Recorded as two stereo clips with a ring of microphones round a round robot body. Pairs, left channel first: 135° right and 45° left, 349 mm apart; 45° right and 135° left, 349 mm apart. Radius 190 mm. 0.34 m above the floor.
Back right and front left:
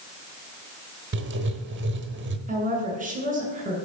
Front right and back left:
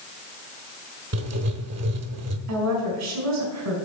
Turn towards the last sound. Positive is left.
turn(degrees=110)